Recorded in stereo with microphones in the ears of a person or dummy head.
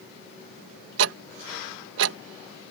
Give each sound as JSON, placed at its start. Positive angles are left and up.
{"t": 1.0, "sound": "ticking", "side_deg": -65}